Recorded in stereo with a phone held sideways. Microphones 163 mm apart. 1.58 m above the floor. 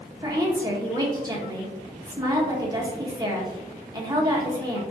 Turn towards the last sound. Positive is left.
turn(degrees=-25)  # may be behind; listen again after turning